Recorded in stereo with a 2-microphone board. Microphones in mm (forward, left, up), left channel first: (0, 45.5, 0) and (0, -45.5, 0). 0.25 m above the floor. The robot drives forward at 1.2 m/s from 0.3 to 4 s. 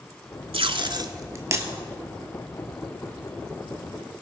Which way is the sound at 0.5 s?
80° right.